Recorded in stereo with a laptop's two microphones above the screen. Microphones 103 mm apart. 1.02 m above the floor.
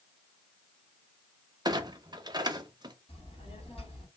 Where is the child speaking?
80° left, 2.5 m.